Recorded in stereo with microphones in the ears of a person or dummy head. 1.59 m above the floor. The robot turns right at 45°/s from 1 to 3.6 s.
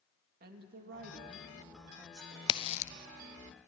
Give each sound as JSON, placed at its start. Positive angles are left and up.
{"t": 0.4, "sound": "a woman speaking", "azimuth_deg": -55, "distance_m": 2.5}
{"t": 2.5, "sound": "a crack", "side_deg": 30, "distance_m": 0.5}